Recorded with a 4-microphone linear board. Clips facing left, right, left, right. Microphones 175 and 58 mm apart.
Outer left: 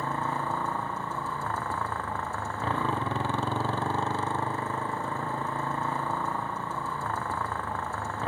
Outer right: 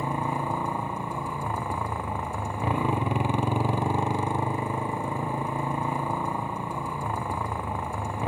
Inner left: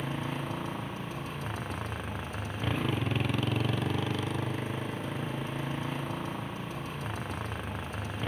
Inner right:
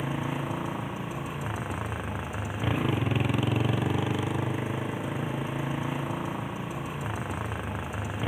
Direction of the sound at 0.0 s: 15° right (ahead or behind).